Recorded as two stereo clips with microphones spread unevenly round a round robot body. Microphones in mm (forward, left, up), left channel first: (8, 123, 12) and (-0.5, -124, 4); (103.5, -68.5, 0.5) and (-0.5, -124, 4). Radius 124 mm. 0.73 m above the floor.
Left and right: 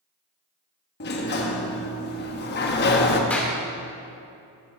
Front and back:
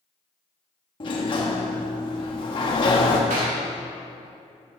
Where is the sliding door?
55° left, 1.2 m.